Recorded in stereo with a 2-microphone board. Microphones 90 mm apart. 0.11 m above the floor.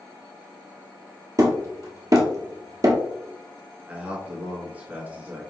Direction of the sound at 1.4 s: 40° right (ahead or behind).